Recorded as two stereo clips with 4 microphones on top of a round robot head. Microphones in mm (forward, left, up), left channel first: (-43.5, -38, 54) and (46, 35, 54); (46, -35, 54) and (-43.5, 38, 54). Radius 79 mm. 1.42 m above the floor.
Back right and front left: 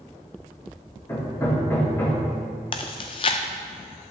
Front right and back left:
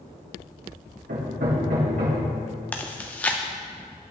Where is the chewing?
115° right, 0.5 m.